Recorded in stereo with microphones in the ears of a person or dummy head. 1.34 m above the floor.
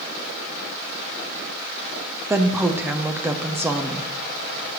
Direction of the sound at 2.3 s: 5° right (ahead or behind).